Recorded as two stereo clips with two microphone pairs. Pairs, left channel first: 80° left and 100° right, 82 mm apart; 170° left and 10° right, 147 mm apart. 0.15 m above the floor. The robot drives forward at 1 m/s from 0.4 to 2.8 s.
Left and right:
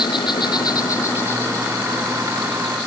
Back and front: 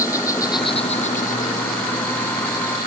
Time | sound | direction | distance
0.0 | an insect | 105° left | ?